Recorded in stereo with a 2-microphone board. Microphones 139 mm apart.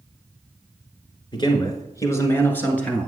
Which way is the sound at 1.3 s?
35° left (ahead or behind).